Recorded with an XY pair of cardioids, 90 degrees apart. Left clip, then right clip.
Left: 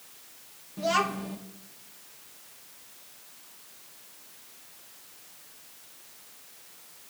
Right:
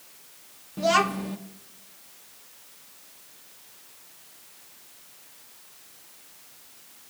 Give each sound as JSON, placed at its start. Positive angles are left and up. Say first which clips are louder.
{"t": 0.8, "sound": "a child speaking", "louder": "right 4 dB", "azimuth_deg": -40, "distance_m": 0.9}